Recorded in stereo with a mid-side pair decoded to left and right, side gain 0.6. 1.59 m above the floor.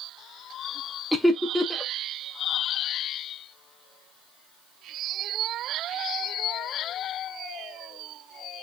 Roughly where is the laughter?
Ahead.